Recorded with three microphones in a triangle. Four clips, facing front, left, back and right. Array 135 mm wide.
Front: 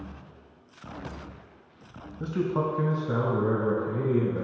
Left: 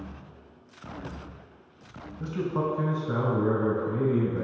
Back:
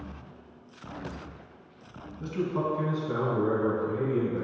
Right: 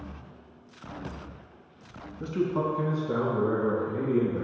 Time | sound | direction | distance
2.2 | a man speaking | straight ahead | 1.0 m